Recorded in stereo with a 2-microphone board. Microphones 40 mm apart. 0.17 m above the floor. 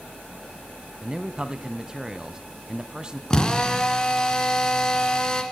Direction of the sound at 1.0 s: 20° right (ahead or behind).